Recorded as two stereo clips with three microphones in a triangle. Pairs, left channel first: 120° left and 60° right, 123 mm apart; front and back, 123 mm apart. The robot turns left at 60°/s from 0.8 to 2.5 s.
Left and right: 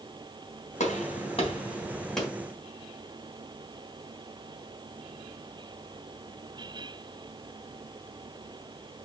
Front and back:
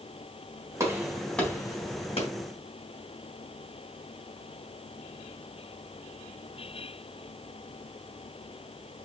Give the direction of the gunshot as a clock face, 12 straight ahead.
8 o'clock.